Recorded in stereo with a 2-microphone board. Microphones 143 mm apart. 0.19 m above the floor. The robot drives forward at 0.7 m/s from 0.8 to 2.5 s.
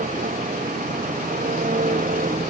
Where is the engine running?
80° right; by 2.5 s 75° right (ahead or behind).